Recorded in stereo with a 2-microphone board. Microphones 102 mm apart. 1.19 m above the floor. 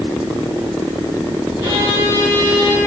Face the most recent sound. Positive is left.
turn(degrees=-30)  # may be behind; listen again after turning